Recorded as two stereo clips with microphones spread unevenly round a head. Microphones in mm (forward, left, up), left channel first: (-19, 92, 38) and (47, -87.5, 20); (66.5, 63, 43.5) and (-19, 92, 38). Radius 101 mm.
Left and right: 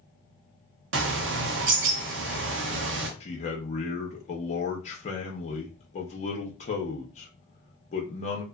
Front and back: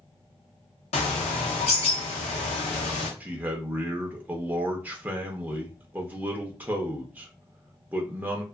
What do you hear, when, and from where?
0.9 s a bird: 40° right, 0.6 m
3.2 s a man speaking: 125° left, 0.6 m